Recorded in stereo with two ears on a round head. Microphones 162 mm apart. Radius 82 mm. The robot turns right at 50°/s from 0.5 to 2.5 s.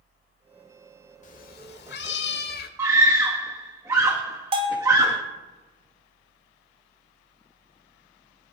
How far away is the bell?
About 2.0 m.